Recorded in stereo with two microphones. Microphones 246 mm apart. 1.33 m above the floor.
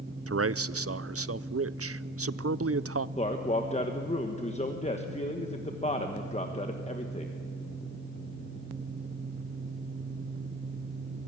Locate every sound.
0.3 s a man speaking: 65° right (ahead or behind), 0.5 m
3.2 s a man speaking: 25° left (ahead or behind), 1.2 m